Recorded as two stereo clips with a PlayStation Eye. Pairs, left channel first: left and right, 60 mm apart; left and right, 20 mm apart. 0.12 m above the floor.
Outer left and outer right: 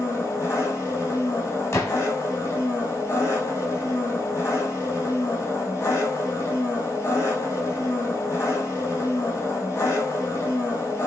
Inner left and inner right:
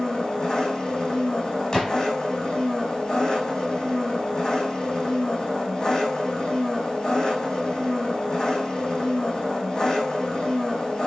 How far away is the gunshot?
About 3.5 m.